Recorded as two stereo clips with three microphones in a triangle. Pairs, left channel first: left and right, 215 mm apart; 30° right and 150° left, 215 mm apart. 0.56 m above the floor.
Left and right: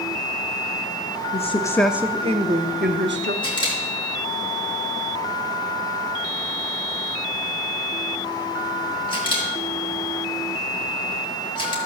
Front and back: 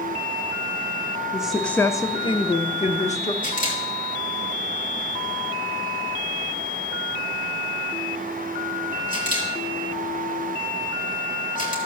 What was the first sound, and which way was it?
A woman speaking, 70° left.